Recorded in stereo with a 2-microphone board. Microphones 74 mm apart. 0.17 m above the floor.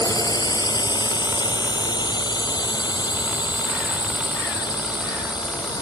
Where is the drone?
60° left (ahead or behind); by 5.8 s 75° left (ahead or behind).